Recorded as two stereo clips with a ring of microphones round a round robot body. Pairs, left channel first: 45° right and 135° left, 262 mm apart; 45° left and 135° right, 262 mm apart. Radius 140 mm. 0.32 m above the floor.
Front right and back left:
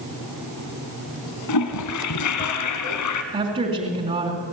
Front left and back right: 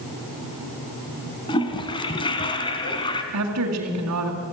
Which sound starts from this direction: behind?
A woman speaking, at 3.3 s.